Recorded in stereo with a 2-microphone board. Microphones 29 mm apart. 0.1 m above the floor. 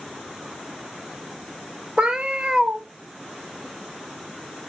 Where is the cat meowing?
40° right (ahead or behind), 1.2 m.